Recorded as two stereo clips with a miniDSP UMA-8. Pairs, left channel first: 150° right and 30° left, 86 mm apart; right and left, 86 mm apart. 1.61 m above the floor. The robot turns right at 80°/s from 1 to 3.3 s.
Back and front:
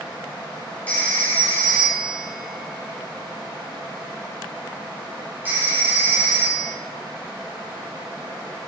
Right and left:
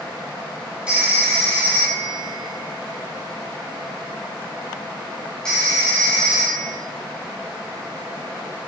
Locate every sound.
0.9 s a phone ringing: 160° left, 1.0 m; by 6.7 s 20° right, 1.0 m